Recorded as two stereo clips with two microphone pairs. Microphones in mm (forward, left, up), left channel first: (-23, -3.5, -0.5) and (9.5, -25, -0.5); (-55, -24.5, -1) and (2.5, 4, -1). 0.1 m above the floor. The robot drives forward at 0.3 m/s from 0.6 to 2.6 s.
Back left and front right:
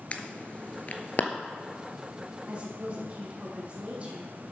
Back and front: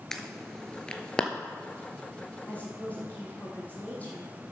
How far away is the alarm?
About 0.9 m.